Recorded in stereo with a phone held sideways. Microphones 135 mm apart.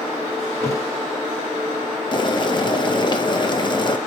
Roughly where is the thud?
Left.